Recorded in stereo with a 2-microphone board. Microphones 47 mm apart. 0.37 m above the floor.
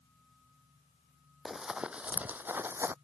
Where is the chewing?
I don't hear chewing.